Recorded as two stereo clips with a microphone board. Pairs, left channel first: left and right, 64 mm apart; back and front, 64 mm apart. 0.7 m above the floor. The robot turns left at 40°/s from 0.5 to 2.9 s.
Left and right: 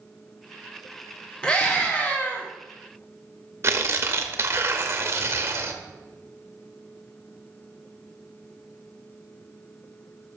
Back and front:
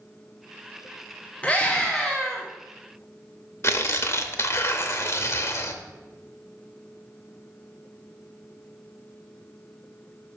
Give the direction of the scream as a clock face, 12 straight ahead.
7 o'clock.